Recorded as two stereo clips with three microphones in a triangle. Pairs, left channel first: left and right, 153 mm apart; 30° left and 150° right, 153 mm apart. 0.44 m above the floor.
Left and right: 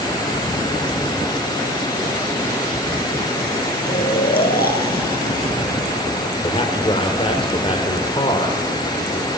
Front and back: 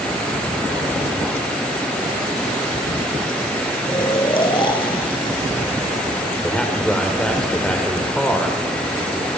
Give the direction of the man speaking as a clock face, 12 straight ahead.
8 o'clock.